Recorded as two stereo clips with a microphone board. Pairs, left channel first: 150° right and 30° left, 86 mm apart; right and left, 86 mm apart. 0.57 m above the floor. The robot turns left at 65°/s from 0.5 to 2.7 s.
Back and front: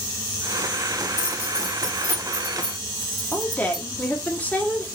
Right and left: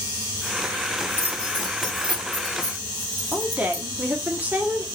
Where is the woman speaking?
150° left, 0.9 m.